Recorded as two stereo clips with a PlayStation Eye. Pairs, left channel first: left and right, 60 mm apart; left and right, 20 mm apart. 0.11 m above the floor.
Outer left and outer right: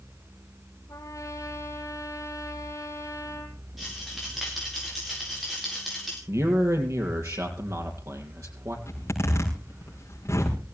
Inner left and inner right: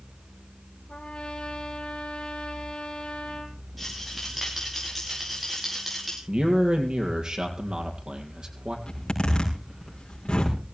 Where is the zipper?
45° left (ahead or behind), 6 m.